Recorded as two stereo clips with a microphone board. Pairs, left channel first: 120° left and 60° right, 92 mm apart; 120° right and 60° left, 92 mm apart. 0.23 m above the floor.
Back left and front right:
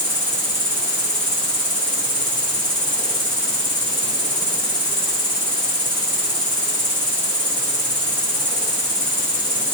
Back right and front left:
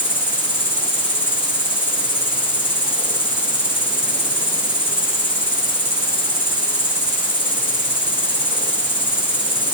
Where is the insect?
125° right, 8.5 m.